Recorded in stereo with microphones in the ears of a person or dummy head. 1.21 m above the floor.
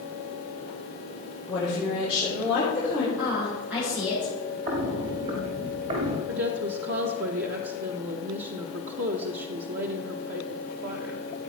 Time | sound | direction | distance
1.5 | a woman speaking | 10° right (ahead or behind) | 3.5 m
3.2 | a woman speaking | 5° right (ahead or behind) | 5.5 m
4.7 | footsteps | 45° right (ahead or behind) | 1.7 m
6.3 | a woman speaking | 55° right (ahead or behind) | 1.1 m